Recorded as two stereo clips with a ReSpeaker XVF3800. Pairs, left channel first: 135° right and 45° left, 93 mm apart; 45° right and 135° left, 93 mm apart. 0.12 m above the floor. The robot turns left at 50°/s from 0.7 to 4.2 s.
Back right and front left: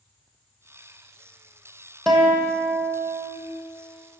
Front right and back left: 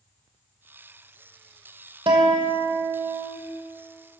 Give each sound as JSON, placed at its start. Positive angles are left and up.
{"t": 2.1, "sound": "a guitar", "azimuth_deg": 140, "distance_m": 2.0}